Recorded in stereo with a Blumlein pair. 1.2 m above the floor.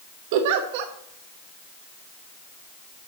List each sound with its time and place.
0.3 s a giggle: 50° right, 1.0 m